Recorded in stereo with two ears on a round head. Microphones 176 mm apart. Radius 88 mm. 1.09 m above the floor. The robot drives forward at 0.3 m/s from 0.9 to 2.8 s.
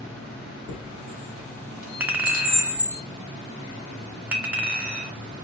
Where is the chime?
55° left (ahead or behind), 3 m; by 3.0 s 45° left (ahead or behind), 3.5 m.